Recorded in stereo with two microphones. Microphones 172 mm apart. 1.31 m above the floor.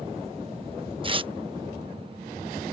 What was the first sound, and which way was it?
Tearing paper, 35° right (ahead or behind).